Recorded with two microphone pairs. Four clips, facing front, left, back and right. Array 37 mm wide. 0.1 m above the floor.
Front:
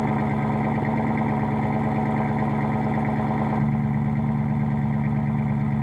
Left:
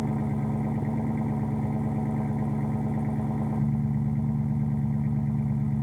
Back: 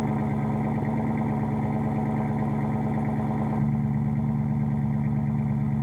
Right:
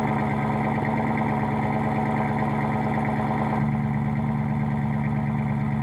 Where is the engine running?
60° right.